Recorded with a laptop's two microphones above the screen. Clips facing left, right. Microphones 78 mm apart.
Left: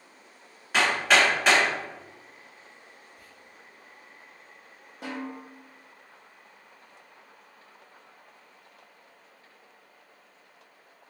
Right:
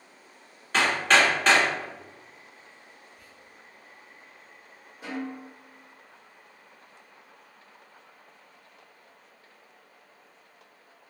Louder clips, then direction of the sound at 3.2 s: Even; 80° left.